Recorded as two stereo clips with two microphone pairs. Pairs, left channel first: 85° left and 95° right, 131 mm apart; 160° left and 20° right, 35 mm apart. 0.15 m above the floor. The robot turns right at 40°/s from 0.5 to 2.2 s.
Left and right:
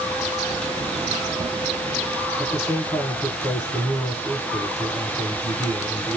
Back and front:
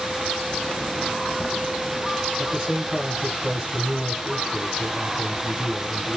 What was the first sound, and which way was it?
A man speaking, 45° left.